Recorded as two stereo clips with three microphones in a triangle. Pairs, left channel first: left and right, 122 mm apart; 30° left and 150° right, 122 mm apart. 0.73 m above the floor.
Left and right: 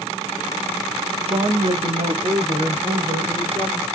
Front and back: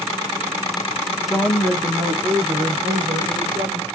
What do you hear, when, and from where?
1.3 s a woman speaking: 65° right, 1.4 m; by 3.9 s 145° right, 3 m